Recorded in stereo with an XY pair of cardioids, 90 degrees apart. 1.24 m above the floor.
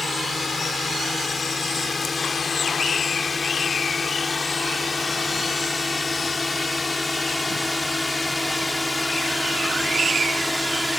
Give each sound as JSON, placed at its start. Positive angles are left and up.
{"t": 0.0, "sound": "a drone", "azimuth_deg": 40}